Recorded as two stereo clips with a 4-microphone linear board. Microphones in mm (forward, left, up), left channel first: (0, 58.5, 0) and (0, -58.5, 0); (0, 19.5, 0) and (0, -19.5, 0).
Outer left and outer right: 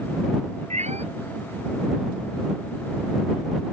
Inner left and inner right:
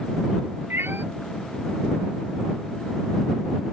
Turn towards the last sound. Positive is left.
turn(degrees=-80)